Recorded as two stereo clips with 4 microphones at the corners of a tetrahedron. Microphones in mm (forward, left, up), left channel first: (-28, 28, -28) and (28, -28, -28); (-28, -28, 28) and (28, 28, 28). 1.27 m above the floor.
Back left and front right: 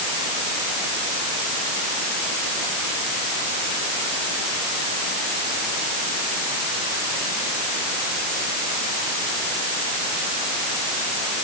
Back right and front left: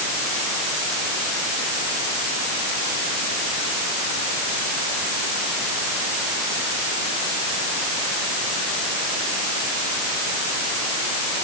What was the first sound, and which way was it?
Only background noise.